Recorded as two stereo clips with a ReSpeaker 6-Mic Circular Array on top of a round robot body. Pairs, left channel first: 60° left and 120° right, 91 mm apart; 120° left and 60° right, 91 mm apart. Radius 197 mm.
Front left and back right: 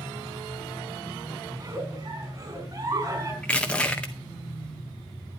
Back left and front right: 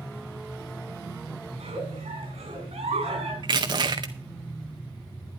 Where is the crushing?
20° right, 0.6 m.